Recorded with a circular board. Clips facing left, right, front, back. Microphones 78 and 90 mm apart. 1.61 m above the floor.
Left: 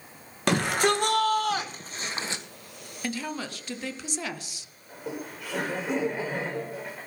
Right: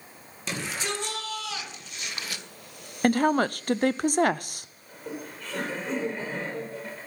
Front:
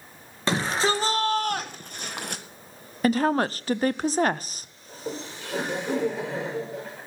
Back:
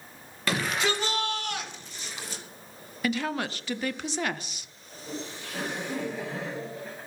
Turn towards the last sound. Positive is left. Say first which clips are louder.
# left 2 dB, front 3 dB
turn(degrees=10)